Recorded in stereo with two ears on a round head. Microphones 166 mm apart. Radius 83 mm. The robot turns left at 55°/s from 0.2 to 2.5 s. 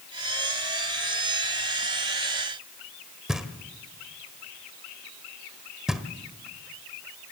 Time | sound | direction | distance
3.3 | knocking | 5° right (ahead or behind) | 1.2 m